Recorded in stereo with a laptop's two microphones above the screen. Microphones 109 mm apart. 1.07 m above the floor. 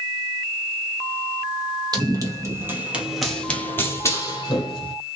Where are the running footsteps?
40° right (ahead or behind), 1.6 m; by 5.0 s 45° left (ahead or behind), 1.9 m.